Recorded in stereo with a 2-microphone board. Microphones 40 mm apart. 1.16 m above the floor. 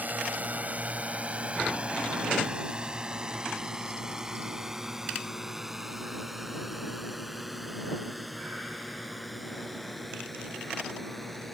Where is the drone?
45° right (ahead or behind); by 11.5 s 5° left (ahead or behind).